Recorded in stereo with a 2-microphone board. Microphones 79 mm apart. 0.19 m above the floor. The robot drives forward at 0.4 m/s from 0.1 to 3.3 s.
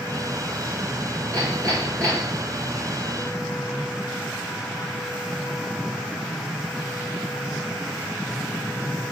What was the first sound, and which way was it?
Hammering, 45° right (ahead or behind).